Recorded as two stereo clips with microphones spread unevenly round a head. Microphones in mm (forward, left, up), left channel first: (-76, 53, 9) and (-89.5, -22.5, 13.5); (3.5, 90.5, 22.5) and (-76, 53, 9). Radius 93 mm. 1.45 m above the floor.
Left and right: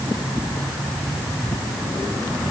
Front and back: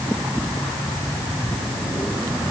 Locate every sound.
Only background noise.